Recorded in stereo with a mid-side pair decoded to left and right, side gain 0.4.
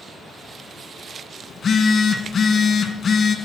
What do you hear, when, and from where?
1.5 s a phone buzzing: 55° left, 2 m